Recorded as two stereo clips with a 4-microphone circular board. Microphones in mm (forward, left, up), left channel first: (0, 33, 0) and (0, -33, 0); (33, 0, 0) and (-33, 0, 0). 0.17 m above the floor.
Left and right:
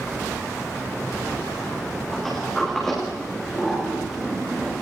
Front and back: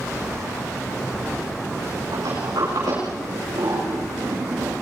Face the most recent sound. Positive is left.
turn(degrees=175)